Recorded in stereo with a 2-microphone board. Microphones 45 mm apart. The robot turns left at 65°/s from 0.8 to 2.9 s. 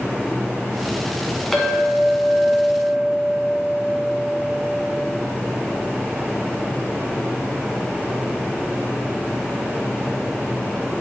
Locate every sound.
1.5 s a clink: 10° left, 1.3 m; by 4.8 s 80° right, 1.3 m